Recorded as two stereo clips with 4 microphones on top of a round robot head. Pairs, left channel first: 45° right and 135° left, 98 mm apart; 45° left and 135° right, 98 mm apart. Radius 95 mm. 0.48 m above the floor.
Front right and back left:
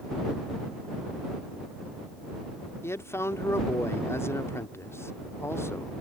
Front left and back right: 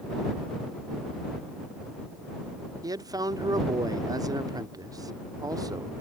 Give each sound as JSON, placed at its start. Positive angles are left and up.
{"t": 2.8, "sound": "a man speaking", "azimuth_deg": -100}